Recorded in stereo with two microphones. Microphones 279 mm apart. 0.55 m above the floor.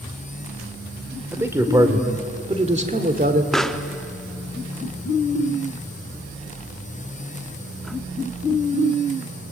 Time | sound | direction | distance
1.3 | a man speaking | 5° right (ahead or behind) | 2 m
3.5 | a pop | centre (ahead or behind) | 0.8 m